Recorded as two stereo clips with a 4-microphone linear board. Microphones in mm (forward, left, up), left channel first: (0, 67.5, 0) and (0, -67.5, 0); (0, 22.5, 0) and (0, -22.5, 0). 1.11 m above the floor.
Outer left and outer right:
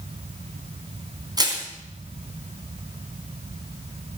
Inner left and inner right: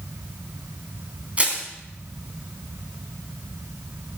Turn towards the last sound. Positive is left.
turn(degrees=-30)  # may be behind; listen again after turning